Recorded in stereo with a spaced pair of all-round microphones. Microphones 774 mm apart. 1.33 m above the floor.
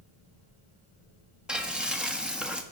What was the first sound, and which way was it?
Frying, centre (ahead or behind).